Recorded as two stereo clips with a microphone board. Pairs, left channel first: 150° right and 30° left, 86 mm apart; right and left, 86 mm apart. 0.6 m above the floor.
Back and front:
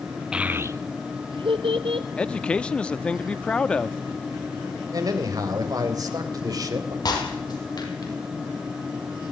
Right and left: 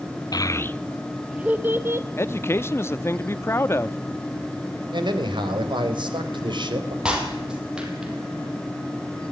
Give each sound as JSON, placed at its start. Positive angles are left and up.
{"t": 0.3, "sound": "a child speaking", "azimuth_deg": -50, "distance_m": 0.8}
{"t": 2.2, "sound": "a man speaking", "azimuth_deg": -90, "distance_m": 0.7}
{"t": 4.9, "sound": "a man speaking", "azimuth_deg": 70, "distance_m": 3.5}
{"t": 7.0, "sound": "breaking glass", "azimuth_deg": 170, "distance_m": 5.0}